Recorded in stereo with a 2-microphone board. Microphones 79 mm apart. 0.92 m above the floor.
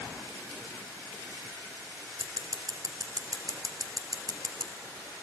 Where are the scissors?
45° right (ahead or behind), 2.5 m.